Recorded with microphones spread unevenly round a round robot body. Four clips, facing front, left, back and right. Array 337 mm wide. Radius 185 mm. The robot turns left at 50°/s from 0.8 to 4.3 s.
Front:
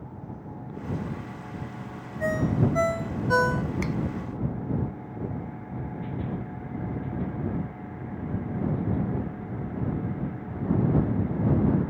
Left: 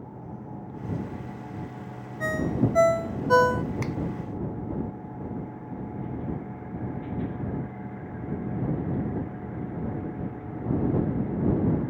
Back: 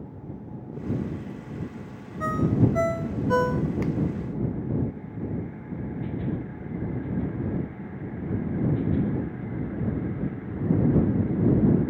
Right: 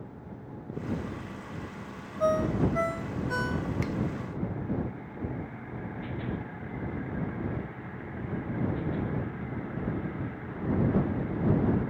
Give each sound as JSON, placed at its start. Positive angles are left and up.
{"t": 2.2, "sound": "a ringtone", "azimuth_deg": 125}
{"t": 3.8, "sound": "a finger snap", "azimuth_deg": 75}